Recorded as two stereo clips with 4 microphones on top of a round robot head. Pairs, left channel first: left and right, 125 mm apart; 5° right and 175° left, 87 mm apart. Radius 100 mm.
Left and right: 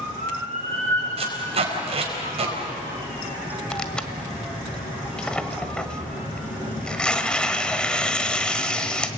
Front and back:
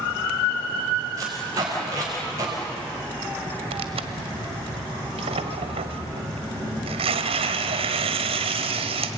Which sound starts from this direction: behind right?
Tape being pulled, at 1.2 s.